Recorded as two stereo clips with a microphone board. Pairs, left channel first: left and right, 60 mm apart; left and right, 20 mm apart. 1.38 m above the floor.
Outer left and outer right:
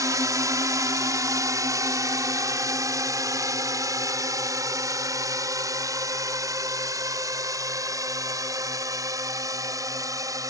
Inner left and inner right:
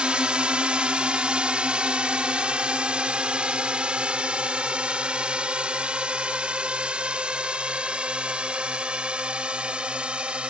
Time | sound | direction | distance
0.0 | a drone | 80° right | ?